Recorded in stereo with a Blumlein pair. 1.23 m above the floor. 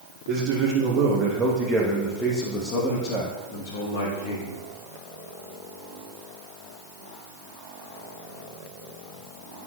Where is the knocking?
No knocking in this recording.